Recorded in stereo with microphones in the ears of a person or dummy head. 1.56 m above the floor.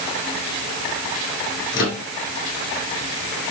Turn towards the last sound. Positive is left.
turn(degrees=60)  # may be behind; listen again after turning